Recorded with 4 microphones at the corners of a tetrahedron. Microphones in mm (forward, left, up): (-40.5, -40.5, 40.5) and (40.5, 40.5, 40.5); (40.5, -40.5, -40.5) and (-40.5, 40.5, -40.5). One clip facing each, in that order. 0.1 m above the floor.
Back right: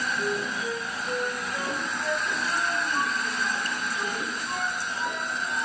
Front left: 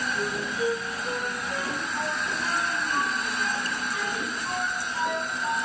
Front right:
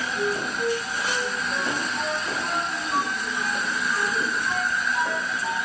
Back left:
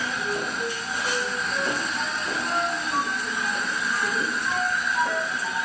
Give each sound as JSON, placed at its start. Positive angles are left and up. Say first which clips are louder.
{"t": 0.1, "sound": "a flute", "louder": "even, front right 2 dB", "azimuth_deg": 15, "distance_m": 10.0}